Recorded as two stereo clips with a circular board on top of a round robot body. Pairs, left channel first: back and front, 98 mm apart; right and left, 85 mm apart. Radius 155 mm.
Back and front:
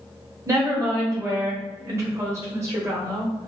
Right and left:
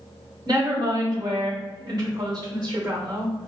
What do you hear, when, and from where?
0.5 s a woman speaking: 55° left, 1.8 m